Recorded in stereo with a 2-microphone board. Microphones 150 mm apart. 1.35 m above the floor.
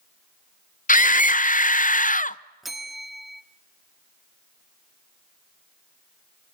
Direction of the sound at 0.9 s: 60° left (ahead or behind).